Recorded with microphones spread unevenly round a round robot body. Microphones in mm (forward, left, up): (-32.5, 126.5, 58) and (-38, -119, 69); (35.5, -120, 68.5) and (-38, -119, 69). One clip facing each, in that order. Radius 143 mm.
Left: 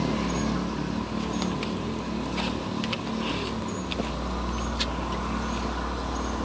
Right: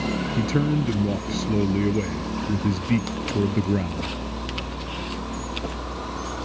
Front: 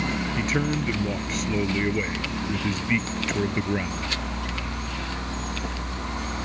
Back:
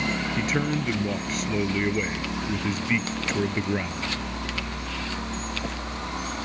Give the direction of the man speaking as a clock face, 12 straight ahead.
3 o'clock.